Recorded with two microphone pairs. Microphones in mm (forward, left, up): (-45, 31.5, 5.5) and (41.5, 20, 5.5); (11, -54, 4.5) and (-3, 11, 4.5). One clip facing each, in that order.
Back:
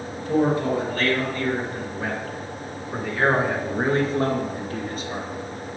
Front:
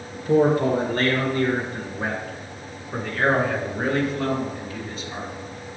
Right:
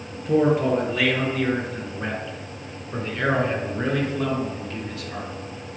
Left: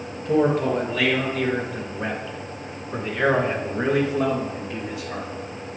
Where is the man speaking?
5° left, 3 m; by 5.3 s 175° left, 2.5 m.